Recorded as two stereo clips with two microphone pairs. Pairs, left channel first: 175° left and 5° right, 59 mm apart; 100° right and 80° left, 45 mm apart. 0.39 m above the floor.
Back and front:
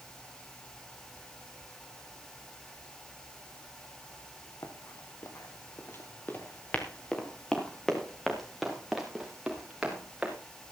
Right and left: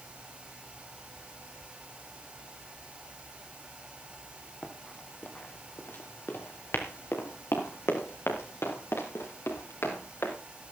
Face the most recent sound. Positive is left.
turn(degrees=-85)